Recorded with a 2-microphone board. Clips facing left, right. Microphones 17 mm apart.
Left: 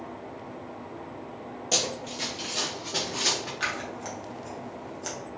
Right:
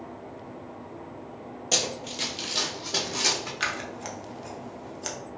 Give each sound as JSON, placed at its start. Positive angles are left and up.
{"t": 1.7, "sound": "running footsteps", "side_deg": -15, "distance_m": 0.5}
{"t": 3.6, "sound": "scissors", "side_deg": -20, "distance_m": 0.5}